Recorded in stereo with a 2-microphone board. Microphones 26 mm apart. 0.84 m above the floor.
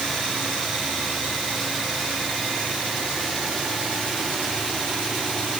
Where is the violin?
I don't hear a violin.